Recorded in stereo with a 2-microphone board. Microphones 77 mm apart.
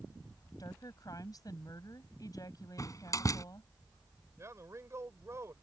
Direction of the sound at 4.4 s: 40° right (ahead or behind).